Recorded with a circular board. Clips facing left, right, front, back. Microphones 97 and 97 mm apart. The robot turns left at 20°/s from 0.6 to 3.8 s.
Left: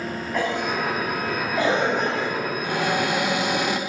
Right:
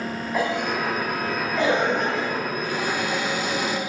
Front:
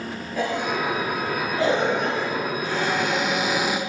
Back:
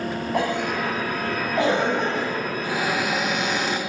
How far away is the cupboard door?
About 2 m.